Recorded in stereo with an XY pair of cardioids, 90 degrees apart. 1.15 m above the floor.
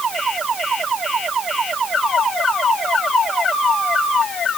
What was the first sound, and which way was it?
Only background noise.